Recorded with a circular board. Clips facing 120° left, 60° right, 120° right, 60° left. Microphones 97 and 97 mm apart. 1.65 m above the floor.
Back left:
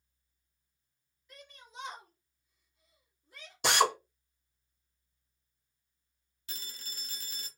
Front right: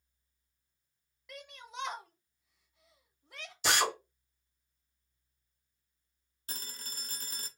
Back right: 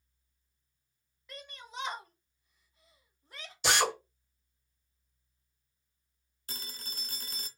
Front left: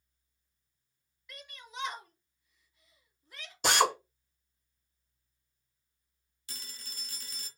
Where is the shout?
60° right, 1.2 m.